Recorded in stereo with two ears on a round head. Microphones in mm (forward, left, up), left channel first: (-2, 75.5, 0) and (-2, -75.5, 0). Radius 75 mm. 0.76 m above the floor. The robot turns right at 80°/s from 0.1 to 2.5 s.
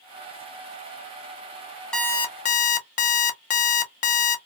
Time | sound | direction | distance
1.9 | an alarm clock | 5° left | 0.6 m